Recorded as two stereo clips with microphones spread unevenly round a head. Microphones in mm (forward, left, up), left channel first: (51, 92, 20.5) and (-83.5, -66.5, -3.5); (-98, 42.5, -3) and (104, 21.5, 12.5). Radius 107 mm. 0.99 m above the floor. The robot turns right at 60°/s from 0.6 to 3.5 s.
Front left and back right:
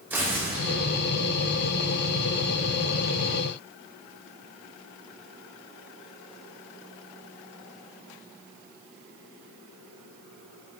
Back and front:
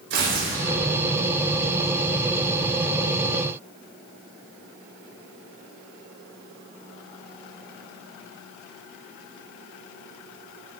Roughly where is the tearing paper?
Ahead right.